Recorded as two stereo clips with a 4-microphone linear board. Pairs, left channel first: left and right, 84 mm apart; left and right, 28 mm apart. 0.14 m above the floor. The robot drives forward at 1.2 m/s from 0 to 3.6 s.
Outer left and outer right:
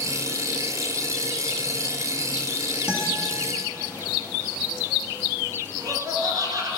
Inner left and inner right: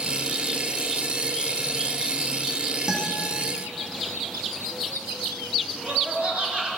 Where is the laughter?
45° right (ahead or behind), 2.5 m.